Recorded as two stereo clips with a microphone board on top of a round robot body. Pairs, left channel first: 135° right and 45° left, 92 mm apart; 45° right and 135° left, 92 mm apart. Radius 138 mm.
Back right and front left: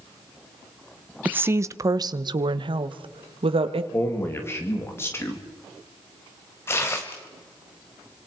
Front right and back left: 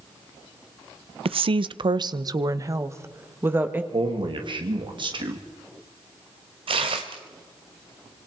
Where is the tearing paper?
160° left, 1.4 m.